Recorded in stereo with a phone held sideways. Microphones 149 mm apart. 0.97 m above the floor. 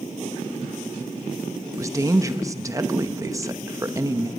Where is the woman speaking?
20° right (ahead or behind), 0.8 m.